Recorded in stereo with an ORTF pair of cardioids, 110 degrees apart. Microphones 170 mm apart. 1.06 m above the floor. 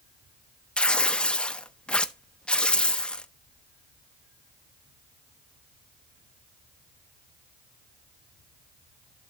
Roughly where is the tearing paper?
Ahead.